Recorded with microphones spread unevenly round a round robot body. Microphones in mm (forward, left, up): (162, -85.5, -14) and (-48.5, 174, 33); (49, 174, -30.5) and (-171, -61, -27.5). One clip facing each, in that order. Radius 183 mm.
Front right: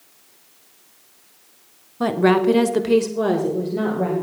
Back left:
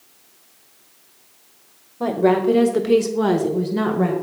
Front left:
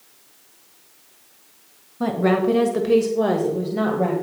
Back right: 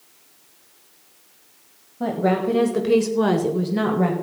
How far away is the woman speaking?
About 1.2 m.